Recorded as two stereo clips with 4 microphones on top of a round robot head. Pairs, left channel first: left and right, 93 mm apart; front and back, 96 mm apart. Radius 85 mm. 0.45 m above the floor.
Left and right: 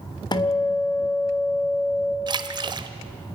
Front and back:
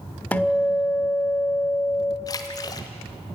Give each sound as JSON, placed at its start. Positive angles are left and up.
{"t": 0.3, "sound": "a guitar", "azimuth_deg": 70, "distance_m": 1.8}
{"t": 2.3, "sound": "a splash", "azimuth_deg": -55, "distance_m": 1.1}